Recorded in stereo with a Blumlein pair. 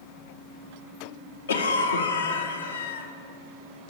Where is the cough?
70° left, 0.5 m.